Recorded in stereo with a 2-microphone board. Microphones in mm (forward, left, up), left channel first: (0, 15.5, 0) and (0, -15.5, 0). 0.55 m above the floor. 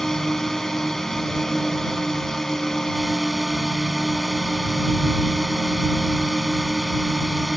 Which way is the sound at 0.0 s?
10° left (ahead or behind).